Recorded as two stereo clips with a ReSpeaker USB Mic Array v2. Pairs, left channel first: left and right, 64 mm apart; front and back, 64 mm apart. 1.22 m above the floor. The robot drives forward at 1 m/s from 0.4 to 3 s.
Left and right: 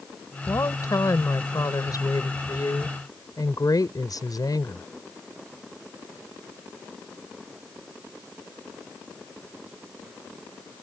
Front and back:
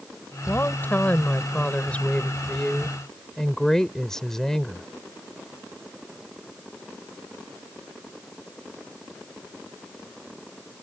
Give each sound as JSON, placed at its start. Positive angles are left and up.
{"t": 0.5, "sound": "a woman speaking", "azimuth_deg": 55}